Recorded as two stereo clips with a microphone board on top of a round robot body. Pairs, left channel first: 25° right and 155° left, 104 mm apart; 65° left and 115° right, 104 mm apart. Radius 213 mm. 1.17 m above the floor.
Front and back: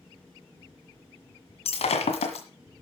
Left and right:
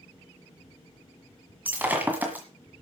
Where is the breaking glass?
40° right, 1.8 m.